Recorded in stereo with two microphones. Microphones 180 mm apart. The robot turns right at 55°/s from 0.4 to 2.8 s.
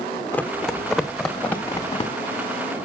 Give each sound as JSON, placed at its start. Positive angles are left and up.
{"t": 0.3, "sound": "running footsteps", "side_deg": 15, "distance_m": 0.9}